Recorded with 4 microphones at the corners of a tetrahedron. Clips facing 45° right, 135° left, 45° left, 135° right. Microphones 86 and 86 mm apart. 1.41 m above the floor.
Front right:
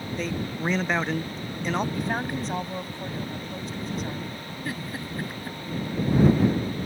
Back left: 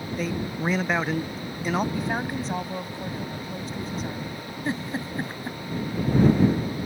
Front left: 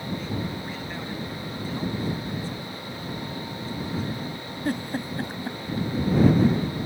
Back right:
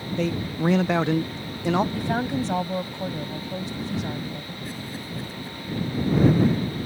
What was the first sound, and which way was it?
A man speaking, 140° right.